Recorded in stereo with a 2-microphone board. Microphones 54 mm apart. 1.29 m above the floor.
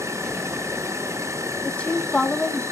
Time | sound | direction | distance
0.0 | an insect | 65° right (ahead or behind) | 0.9 m
1.6 | a woman speaking | 20° left (ahead or behind) | 1.3 m